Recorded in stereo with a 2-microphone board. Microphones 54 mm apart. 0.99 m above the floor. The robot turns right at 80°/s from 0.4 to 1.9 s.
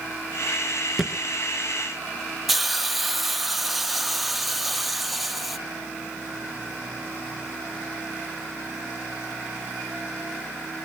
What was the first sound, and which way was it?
A thud, 5° right (ahead or behind).